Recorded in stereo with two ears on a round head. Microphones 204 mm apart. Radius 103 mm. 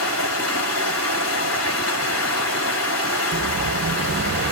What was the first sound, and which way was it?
Running water, 75° left (ahead or behind).